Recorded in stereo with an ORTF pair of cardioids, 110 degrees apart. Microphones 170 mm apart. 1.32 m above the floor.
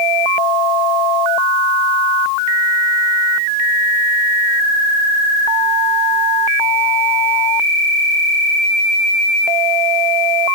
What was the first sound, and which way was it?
Only background noise.